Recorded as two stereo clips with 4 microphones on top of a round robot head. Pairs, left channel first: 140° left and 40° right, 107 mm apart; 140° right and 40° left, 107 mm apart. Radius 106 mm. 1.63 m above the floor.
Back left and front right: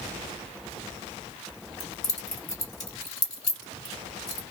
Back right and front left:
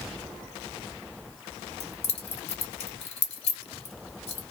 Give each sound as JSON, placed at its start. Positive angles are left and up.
{"t": 1.8, "sound": "keys jangling", "azimuth_deg": -170, "distance_m": 1.5}